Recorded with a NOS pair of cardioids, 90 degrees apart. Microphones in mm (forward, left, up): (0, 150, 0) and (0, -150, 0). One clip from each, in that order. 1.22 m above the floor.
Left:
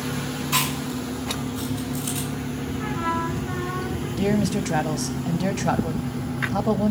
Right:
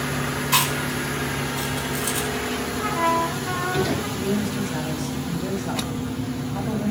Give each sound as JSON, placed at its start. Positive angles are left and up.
{"t": 0.5, "sound": "chewing", "azimuth_deg": -35, "distance_m": 5.0}
{"t": 2.8, "sound": "a trumpet", "azimuth_deg": -65, "distance_m": 4.5}
{"t": 4.2, "sound": "a man speaking", "azimuth_deg": 60, "distance_m": 1.6}